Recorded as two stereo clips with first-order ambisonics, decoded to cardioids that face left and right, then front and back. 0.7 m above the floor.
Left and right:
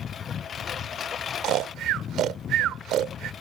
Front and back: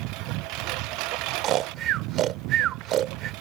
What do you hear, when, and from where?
0.0 s a lawn mower: 155° left
1.4 s snoring: 135° right